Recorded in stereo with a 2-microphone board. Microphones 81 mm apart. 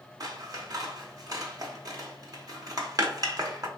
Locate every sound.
0.2 s scissors: 50° right (ahead or behind), 0.7 m